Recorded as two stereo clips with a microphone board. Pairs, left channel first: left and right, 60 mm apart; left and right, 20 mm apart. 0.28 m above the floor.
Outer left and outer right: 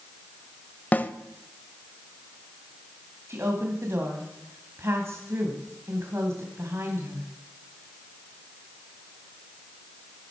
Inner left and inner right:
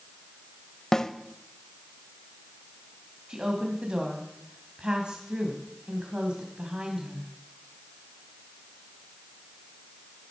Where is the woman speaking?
50° right (ahead or behind), 1.6 m.